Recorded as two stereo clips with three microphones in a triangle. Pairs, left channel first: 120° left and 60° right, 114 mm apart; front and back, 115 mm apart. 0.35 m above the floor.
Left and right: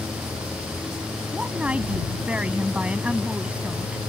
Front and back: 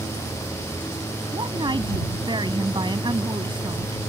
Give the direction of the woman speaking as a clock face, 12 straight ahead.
5 o'clock.